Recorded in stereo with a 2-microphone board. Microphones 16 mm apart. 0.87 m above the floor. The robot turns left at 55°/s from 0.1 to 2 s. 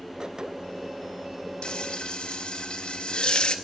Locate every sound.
1.6 s frying: 65° left (ahead or behind), 0.7 m; by 3.5 s 80° left, 0.7 m